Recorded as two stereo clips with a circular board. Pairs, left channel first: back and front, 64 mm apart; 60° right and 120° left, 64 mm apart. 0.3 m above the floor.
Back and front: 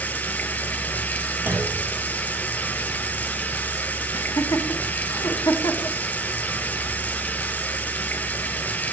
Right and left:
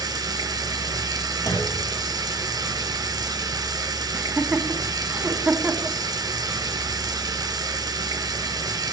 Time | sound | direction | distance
0.0 | running water | 115° left | 1.7 m
1.5 | a clunk | 55° right | 4.5 m
4.1 | laughter | straight behind | 2.5 m